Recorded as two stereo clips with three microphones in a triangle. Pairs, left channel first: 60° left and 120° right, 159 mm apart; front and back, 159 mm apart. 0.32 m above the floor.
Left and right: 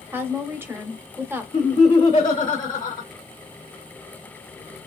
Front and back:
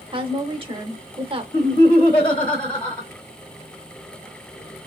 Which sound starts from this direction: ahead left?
Laughter, at 1.5 s.